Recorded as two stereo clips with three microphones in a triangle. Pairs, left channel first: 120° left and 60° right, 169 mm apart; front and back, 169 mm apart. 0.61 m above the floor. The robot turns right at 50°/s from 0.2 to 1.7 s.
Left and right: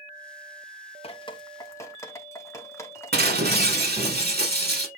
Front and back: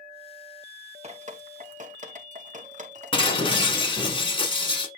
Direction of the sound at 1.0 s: 155° left.